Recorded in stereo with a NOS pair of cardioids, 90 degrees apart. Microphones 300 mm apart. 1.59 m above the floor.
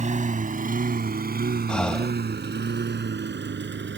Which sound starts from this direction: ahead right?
A lawn mower, at 0.0 s.